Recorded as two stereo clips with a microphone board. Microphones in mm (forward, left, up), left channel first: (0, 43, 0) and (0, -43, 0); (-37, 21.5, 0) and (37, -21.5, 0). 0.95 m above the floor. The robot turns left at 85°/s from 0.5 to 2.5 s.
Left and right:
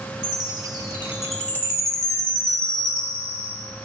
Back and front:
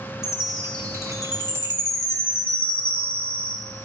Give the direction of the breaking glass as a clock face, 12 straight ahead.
No breaking glass in this recording.